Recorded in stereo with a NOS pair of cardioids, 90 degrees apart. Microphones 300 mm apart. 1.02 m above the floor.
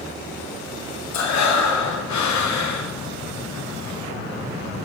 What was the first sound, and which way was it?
Breathing, 65° left.